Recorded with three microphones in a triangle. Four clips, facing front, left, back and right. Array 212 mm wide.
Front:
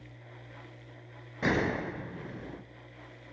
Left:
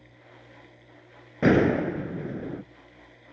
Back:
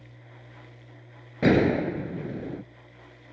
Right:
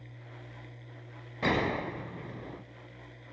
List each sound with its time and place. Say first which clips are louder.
1.4 s a gunshot: left 9 dB, back 9 dB; 130° left, 0.9 m